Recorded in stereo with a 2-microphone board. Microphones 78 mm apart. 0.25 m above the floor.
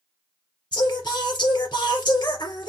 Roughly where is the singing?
Left.